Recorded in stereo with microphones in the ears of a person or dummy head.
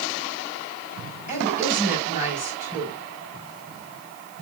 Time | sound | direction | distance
1.3 | a woman speaking | 45° left (ahead or behind) | 6 m